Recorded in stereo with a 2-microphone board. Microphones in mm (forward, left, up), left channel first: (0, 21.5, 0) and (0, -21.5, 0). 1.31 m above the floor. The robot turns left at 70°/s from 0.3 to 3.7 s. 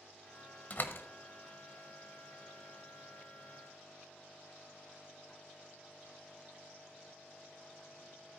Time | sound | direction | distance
0.7 | a door slam | 40° left (ahead or behind) | 0.9 m